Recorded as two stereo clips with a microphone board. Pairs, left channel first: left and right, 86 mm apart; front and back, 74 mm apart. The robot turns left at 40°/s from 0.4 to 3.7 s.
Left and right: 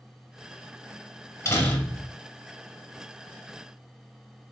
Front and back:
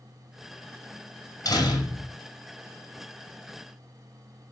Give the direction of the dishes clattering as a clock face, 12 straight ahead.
No dishes clattering in this recording.